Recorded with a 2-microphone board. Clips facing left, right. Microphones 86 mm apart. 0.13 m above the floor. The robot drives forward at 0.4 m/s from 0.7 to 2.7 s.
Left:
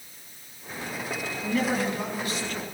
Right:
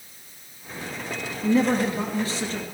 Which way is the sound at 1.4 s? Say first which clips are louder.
Right 6 dB; 30° right (ahead or behind).